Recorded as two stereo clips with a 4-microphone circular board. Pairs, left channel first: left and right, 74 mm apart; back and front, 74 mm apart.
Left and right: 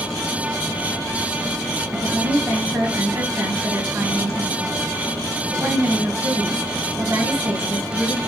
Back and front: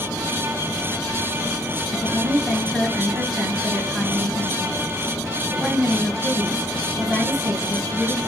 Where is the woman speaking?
85° right, 1.4 m.